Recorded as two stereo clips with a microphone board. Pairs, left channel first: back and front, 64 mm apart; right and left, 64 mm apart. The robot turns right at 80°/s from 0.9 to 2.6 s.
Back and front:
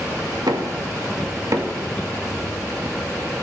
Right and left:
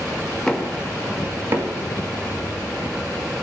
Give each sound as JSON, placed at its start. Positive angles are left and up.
{"t": 0.5, "sound": "knocking", "azimuth_deg": -10, "distance_m": 1.6}